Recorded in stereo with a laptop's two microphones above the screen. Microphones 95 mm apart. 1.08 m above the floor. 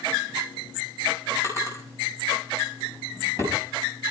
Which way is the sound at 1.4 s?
30° right (ahead or behind).